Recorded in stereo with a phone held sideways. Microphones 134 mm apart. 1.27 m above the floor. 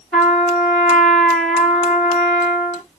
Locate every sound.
0.1 s a trumpet: 5° left (ahead or behind), 3 m